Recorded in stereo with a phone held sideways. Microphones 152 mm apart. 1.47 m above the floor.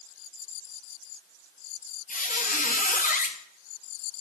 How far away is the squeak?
About 0.6 m.